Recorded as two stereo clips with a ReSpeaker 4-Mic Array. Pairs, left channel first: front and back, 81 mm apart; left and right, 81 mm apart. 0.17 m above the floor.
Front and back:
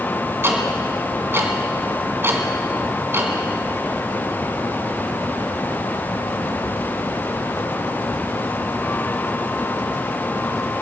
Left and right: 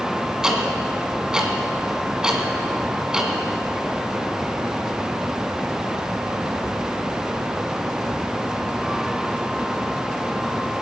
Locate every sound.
0.4 s ticking: 165° right, 1.8 m